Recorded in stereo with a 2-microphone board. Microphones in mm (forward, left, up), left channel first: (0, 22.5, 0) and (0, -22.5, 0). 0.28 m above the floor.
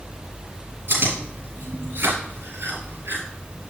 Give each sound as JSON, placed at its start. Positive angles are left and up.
{"t": 0.9, "sound": "chewing", "side_deg": -55, "distance_m": 4.5}